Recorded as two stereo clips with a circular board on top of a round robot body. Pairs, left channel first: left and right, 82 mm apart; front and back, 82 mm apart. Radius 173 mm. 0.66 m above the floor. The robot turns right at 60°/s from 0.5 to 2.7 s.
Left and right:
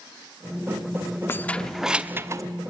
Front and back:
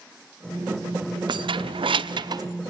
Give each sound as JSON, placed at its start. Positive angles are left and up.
{"t": 1.3, "sound": "keys jangling", "azimuth_deg": 155, "distance_m": 1.0}